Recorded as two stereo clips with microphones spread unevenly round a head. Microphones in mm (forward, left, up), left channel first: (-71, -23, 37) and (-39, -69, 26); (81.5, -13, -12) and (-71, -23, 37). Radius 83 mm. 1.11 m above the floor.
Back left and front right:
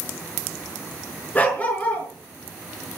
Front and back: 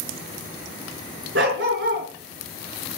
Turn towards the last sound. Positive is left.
turn(degrees=180)